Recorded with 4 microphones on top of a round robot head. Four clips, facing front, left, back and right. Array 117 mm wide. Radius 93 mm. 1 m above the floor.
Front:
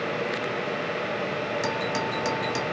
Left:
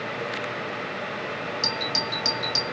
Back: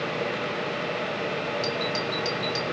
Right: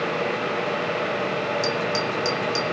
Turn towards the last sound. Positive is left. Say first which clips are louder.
# right 6 dB, front 1 dB
turn(degrees=20)